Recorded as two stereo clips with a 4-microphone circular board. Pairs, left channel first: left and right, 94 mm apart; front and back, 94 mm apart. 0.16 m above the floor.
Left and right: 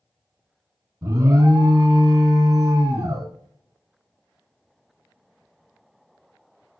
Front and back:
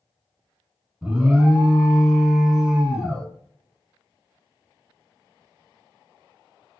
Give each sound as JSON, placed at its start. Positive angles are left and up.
{"t": 1.0, "sound": "an alarm", "azimuth_deg": -110, "distance_m": 1.2}